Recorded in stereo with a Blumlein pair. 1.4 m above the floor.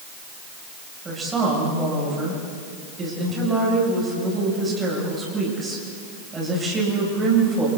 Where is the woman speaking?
15° right, 7.5 m.